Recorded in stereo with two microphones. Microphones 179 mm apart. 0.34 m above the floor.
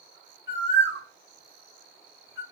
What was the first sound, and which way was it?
A bird, 90° left.